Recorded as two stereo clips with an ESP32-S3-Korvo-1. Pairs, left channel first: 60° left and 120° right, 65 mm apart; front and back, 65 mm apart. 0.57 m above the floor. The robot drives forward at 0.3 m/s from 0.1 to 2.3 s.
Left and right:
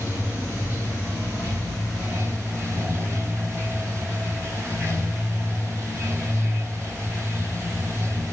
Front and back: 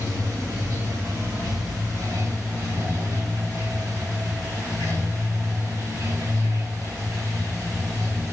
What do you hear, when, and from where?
0.0 s running water: 175° right, 1.4 m